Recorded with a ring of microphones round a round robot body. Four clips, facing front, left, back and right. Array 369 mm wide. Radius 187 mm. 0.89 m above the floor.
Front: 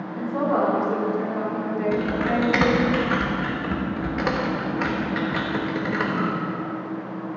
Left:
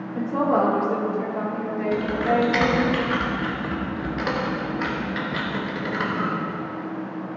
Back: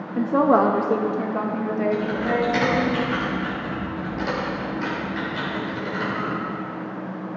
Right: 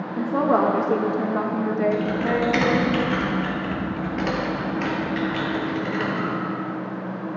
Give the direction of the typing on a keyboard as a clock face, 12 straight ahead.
12 o'clock.